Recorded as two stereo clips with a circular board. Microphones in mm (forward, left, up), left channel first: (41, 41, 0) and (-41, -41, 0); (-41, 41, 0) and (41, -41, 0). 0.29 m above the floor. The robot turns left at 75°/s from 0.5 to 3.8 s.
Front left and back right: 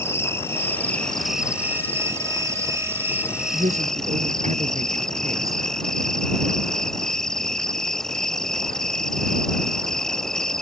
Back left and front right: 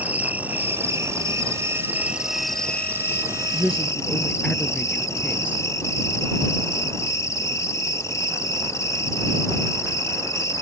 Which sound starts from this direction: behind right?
A woman speaking, at 3.5 s.